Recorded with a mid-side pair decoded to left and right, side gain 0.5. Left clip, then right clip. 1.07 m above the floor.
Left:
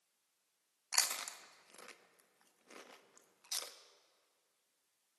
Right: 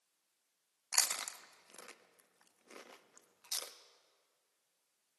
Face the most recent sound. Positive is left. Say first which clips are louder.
# right 1 dB
turn(degrees=-20)